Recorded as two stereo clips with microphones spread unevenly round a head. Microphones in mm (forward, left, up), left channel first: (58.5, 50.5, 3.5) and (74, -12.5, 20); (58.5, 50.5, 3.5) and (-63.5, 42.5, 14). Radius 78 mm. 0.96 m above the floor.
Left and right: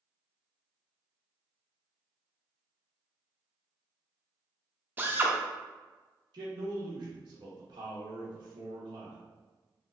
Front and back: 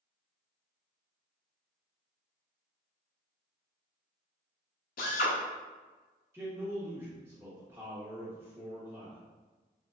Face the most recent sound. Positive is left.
turn(degrees=-100)